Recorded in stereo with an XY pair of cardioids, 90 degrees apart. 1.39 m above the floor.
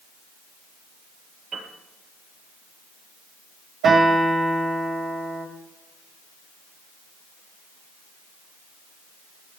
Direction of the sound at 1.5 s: 70° right.